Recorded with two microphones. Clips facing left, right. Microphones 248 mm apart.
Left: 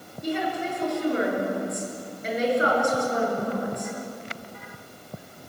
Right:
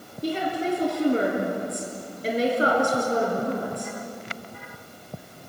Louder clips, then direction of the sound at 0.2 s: Right 2 dB; 35° right (ahead or behind).